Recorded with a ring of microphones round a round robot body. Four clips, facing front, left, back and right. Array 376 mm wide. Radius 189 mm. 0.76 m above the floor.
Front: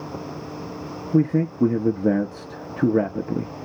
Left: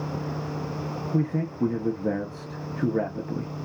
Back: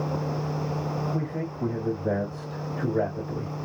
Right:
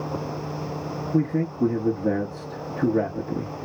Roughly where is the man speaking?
Ahead.